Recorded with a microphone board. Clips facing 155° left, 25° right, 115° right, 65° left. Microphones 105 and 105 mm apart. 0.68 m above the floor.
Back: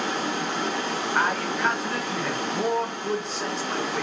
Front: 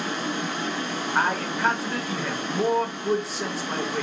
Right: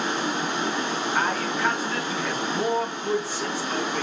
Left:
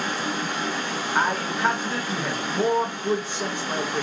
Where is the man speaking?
55° left, 0.8 m.